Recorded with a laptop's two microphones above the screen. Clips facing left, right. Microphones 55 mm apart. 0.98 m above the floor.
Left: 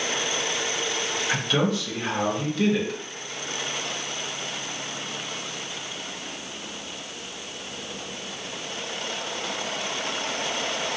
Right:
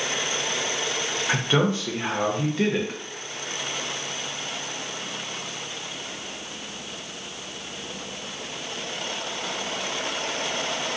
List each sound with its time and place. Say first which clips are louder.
1.3 s a man speaking: right 2 dB; 30° right (ahead or behind), 0.7 m